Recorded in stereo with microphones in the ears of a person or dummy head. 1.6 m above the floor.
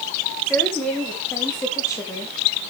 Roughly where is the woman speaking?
Centre.